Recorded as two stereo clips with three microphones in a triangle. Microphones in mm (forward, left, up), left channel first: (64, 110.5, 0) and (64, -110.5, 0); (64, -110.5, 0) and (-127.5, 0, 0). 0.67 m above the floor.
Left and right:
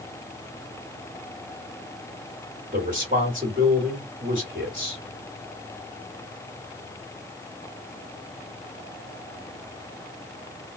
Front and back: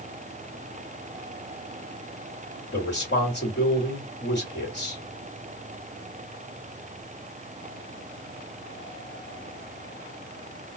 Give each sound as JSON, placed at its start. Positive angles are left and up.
{"t": 2.7, "sound": "a man speaking", "azimuth_deg": -45, "distance_m": 1.6}